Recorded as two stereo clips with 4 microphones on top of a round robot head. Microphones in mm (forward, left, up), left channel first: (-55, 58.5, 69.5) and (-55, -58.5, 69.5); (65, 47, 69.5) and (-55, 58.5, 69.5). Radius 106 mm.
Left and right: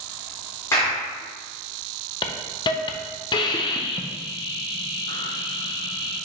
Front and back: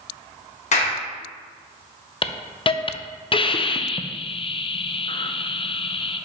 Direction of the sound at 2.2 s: 40° left.